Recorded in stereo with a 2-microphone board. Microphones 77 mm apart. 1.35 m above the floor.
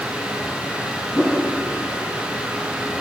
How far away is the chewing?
I don't hear chewing.